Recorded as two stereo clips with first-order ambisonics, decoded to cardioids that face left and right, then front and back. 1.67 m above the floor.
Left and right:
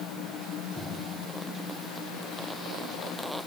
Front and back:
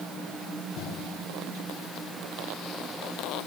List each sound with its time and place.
Only background noise.